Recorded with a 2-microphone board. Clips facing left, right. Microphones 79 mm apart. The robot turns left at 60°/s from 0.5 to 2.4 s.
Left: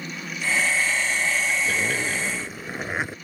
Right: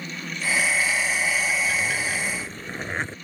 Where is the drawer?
No drawer in this recording.